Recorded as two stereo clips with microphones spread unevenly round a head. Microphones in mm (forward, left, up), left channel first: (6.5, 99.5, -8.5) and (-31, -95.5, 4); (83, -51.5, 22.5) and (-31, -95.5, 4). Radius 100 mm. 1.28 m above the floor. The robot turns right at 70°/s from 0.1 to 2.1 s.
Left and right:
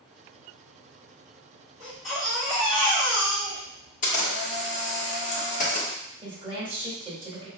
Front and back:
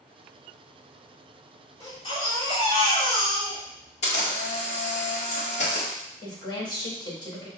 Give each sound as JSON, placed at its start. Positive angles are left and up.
{"t": 1.8, "sound": "a baby crying", "azimuth_deg": -30, "distance_m": 2.0}
{"t": 4.0, "sound": "a camera shutter", "azimuth_deg": 30, "distance_m": 1.3}
{"t": 6.2, "sound": "a woman speaking", "azimuth_deg": -35, "distance_m": 2.0}